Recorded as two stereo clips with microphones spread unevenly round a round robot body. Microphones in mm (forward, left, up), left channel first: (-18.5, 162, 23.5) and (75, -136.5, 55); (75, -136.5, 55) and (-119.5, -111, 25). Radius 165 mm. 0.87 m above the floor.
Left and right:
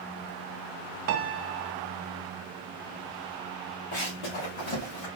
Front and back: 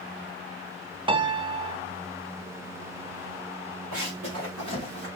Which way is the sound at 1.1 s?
125° right.